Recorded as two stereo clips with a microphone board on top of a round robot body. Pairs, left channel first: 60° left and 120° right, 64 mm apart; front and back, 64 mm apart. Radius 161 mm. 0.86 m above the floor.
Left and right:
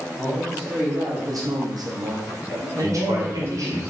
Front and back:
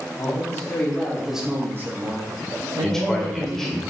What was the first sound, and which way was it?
A man speaking, 55° right.